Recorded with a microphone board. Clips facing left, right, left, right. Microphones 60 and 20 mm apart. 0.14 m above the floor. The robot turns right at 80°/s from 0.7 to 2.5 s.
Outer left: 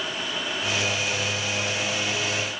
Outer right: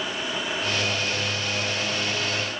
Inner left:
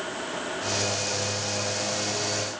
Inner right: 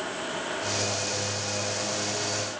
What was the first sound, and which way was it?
Only background noise.